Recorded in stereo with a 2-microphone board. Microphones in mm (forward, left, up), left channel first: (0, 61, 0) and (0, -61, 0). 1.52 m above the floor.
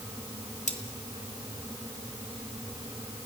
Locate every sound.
0.7 s cutlery clinking: 70° left (ahead or behind), 2.5 m